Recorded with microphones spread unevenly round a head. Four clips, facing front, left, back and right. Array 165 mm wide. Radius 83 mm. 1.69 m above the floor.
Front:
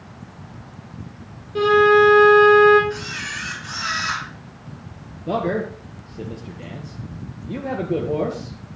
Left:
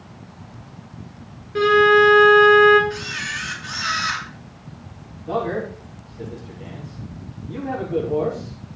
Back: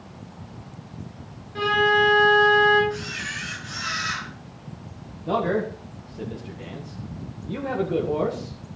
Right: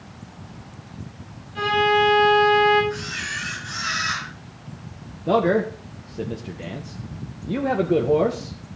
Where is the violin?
45° left, 4 m.